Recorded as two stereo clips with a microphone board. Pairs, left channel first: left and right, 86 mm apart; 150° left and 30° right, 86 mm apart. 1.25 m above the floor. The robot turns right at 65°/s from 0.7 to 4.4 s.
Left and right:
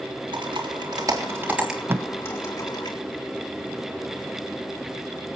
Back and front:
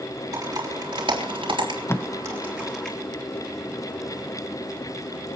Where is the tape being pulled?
150° right, 0.6 m; by 2.1 s 140° right, 0.6 m.